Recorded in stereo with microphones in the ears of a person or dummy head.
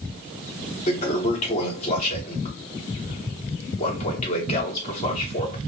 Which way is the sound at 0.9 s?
25° left (ahead or behind).